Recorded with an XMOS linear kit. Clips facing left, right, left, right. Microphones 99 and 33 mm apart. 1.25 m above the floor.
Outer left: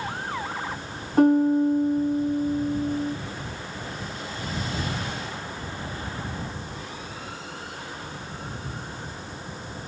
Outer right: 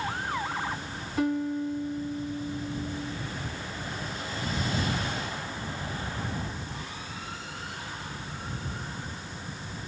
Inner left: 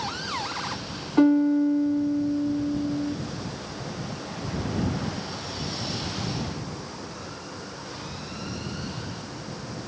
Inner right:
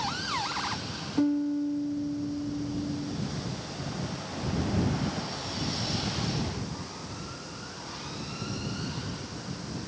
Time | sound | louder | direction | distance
1.2 | a piano | outer left 10 dB, inner left 8 dB | 45° left (ahead or behind) | ?